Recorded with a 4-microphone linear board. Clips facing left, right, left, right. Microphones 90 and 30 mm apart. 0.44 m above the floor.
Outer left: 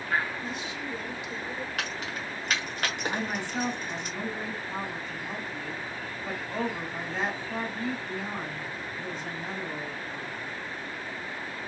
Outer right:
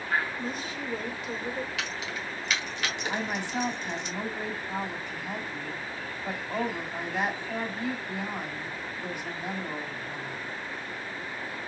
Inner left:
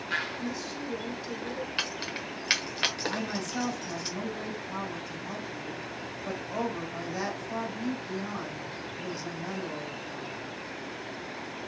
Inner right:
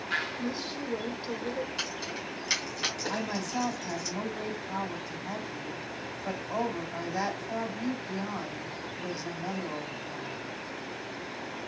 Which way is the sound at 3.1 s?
15° right (ahead or behind).